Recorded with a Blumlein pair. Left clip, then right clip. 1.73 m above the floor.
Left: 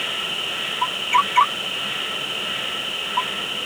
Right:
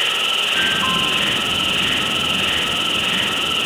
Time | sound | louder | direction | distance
0.0 | an insect | right 7 dB | 40° right | 0.9 m